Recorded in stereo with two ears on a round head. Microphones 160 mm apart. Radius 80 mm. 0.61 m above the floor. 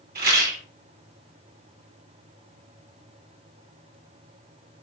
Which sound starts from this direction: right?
A rattle, at 0.1 s.